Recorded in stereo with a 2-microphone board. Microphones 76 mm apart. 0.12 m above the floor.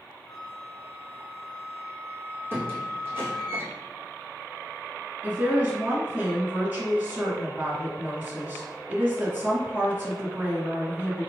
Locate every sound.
0.3 s a flute: 10° left (ahead or behind), 1.0 m
2.5 s a squeak: 30° right (ahead or behind), 1.5 m
5.2 s a woman speaking: 25° right (ahead or behind), 1.6 m